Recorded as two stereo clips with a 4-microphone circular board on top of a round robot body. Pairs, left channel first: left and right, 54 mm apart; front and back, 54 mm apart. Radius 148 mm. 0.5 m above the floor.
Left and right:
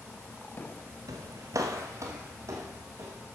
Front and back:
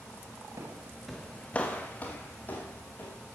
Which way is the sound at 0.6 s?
145° left.